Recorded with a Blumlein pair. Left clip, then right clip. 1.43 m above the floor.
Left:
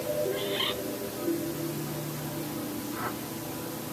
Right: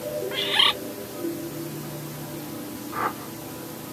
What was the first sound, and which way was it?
A bird, 45° right.